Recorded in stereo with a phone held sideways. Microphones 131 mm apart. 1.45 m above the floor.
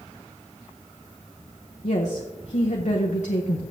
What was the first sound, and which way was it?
A woman speaking, 65° left (ahead or behind).